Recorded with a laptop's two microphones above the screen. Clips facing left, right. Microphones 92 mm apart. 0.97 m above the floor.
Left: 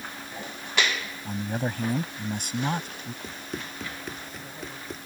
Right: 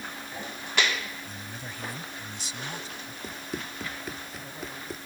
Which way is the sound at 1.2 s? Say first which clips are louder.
Left 11 dB; 55° left (ahead or behind).